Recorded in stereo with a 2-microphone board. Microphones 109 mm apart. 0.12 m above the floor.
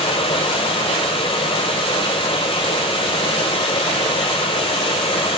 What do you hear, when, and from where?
0.0 s running water: 60° left (ahead or behind), 1.1 m